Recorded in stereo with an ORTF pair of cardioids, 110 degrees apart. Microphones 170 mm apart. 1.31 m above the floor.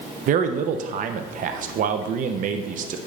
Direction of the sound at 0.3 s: 50° right.